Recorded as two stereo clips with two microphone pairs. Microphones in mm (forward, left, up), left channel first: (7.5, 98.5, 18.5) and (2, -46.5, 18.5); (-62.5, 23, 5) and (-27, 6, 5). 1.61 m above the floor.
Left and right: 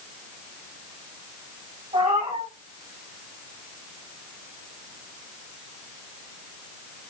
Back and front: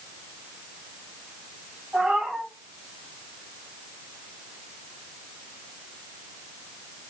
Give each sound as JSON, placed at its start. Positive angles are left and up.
{"t": 1.9, "sound": "a cat meowing", "azimuth_deg": -75, "distance_m": 2.5}